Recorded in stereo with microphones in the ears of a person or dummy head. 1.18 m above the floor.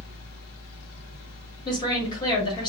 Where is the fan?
60° left (ahead or behind), 0.8 m.